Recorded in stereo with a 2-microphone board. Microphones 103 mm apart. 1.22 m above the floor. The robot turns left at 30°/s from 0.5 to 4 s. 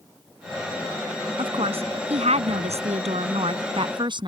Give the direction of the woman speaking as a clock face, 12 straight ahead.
2 o'clock.